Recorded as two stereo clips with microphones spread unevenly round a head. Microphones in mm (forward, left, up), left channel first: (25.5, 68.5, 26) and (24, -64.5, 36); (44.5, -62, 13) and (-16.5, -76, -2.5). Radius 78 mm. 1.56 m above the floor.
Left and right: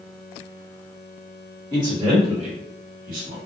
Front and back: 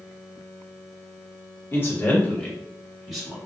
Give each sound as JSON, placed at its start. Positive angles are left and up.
{"t": 1.7, "sound": "a man speaking", "azimuth_deg": -30, "distance_m": 1.5}